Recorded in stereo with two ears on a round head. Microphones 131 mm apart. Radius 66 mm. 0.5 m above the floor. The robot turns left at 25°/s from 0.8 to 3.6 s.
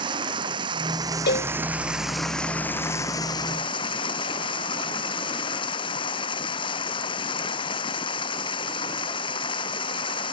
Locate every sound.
0.0 s running water: 145° right; by 10.3 s 145° left
1.3 s a cowbell: 80° left; by 1.5 s 85° left